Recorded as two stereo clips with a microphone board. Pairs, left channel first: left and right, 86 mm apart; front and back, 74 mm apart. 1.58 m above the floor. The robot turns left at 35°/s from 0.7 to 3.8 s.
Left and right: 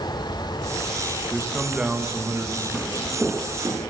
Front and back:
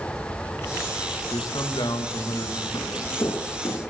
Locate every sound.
1.3 s a man speaking: 10° left, 2.5 m; by 2.6 s 40° right, 2.5 m
2.7 s footsteps: straight ahead, 2.5 m; by 3.8 s 30° right, 3 m